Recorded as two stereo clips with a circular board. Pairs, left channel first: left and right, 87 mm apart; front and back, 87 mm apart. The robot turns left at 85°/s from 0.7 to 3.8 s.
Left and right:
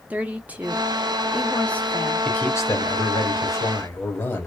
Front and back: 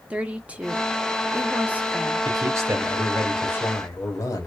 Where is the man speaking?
165° left, 1.0 m; by 4.5 s 35° left, 1.0 m.